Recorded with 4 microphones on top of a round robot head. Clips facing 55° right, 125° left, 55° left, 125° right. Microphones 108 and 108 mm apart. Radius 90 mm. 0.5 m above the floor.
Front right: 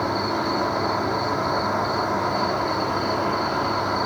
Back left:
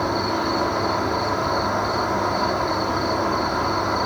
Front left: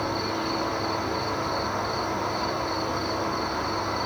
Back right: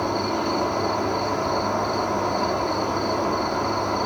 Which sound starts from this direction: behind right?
An insect, at 0.0 s.